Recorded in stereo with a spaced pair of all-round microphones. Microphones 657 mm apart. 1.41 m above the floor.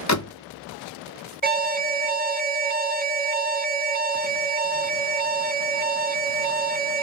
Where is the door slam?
30° left (ahead or behind), 0.6 m.